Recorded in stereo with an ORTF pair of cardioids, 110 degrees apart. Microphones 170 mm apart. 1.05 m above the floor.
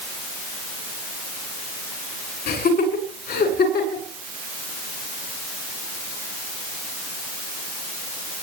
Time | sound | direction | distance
2.5 | laughter | 60° left | 9.5 m